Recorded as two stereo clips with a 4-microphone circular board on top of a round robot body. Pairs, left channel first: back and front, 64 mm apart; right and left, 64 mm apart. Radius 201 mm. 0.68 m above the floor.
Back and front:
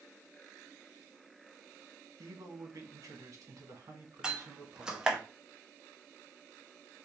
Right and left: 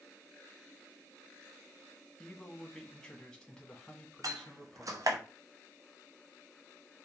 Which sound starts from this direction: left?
A door slam, at 4.2 s.